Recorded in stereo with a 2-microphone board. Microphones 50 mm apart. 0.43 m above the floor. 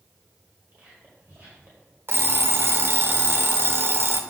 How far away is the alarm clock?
About 0.5 m.